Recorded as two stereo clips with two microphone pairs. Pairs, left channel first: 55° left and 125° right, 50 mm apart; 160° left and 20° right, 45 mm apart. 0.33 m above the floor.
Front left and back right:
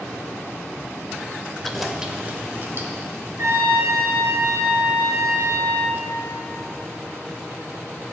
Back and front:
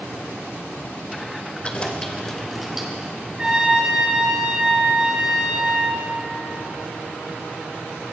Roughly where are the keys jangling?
Behind left.